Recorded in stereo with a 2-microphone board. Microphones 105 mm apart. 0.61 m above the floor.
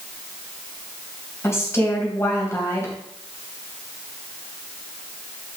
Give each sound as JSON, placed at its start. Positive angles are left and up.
{"t": 1.4, "sound": "a woman speaking", "side_deg": 25, "distance_m": 3.0}